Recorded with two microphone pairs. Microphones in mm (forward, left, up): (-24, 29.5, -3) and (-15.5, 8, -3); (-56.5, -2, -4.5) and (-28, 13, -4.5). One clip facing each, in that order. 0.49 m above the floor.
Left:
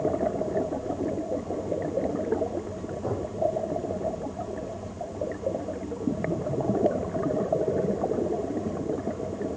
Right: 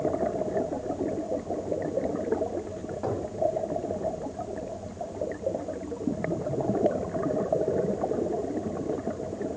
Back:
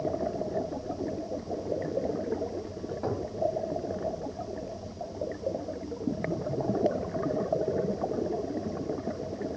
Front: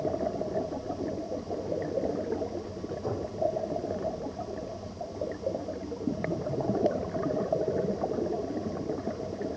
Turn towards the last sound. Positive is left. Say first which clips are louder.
# even, back 2 dB
turn(degrees=-115)